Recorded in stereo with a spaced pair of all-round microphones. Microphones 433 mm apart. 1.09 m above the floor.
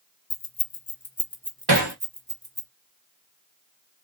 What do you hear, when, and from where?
0.3 s keys jangling: 60° left (ahead or behind), 0.7 m; by 2.7 s 30° right (ahead or behind), 1.0 m
1.7 s hammering: 60° right (ahead or behind), 1.0 m